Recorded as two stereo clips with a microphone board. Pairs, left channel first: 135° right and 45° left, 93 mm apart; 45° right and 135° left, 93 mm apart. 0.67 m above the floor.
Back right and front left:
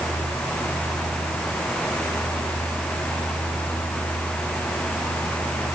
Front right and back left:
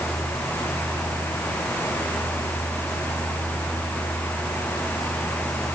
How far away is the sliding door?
No sliding door in this recording.